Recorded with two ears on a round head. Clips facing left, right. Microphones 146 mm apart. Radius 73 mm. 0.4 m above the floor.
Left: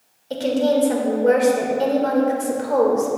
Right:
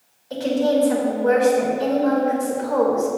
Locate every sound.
0.3 s a woman speaking: 35° left (ahead or behind), 1.5 m